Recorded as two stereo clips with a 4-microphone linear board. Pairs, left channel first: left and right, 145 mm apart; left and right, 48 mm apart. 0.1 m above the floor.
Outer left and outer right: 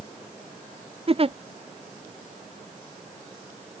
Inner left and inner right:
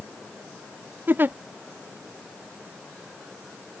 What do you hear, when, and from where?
1.1 s a giggle: 40° right (ahead or behind)